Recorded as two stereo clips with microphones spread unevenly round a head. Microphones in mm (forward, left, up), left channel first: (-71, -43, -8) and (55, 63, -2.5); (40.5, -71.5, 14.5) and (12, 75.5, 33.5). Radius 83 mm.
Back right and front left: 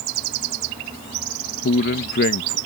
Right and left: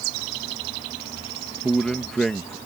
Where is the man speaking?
170° right.